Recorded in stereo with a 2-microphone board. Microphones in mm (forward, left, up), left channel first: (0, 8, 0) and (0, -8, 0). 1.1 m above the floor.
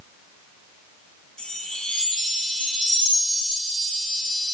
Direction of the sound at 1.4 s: 65° left (ahead or behind).